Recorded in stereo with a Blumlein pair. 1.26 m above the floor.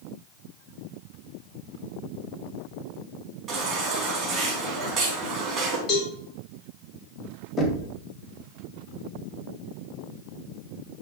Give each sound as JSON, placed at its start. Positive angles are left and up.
{"t": 3.5, "sound": "a baby crying", "azimuth_deg": -25, "distance_m": 3.5}
{"t": 5.9, "sound": "a cowbell", "azimuth_deg": 30, "distance_m": 3.0}
{"t": 7.6, "sound": "knocking", "azimuth_deg": 20, "distance_m": 1.7}